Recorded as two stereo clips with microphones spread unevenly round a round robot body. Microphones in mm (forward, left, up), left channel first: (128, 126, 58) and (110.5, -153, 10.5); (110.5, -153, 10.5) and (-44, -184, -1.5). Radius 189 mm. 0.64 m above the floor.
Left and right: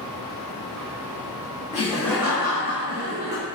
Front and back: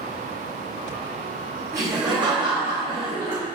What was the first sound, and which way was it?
Laughter, 150° left.